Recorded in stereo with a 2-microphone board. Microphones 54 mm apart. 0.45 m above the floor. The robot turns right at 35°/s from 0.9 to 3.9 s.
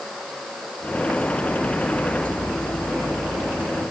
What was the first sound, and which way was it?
Only background noise.